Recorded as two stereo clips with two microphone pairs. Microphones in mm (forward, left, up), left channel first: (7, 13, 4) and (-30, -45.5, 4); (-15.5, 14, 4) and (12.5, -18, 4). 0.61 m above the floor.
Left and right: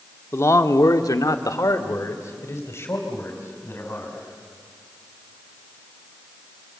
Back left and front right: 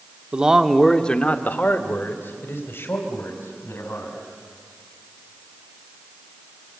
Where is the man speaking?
10° left, 1.2 m; by 4.2 s 115° left, 4.5 m.